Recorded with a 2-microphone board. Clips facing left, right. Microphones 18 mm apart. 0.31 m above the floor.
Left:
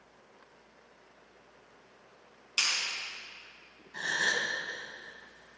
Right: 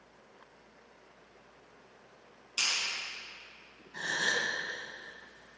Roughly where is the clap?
Left.